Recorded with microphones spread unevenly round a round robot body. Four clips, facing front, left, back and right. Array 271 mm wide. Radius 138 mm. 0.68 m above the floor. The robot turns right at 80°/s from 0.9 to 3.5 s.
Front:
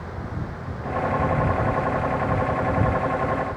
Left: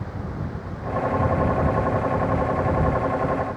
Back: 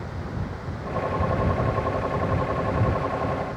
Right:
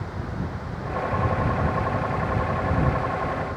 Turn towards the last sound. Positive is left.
No sound to turn to.